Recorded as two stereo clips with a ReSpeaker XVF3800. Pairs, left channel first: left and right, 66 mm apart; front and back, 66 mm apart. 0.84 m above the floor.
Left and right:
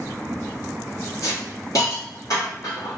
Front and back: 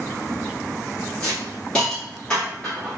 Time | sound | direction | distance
1.2 | a hiss | 75° left | 2.0 m